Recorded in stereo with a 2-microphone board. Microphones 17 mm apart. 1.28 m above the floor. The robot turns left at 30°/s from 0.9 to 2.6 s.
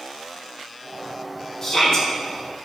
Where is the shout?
25° left (ahead or behind), 2.5 m; by 2.1 s 40° left (ahead or behind), 2.5 m.